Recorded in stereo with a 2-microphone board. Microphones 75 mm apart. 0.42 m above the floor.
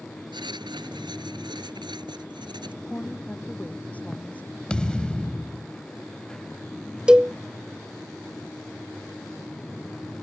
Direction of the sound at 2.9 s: 20° left (ahead or behind).